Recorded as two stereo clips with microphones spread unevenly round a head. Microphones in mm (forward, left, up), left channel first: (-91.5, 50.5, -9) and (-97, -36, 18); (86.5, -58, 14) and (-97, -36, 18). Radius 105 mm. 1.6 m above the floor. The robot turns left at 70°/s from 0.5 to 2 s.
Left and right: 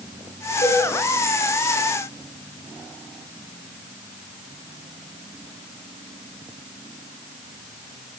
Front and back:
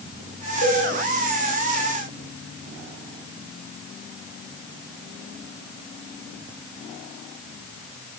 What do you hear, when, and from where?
0.6 s a cowbell: 35° left, 3 m; by 0.8 s 20° left, 3 m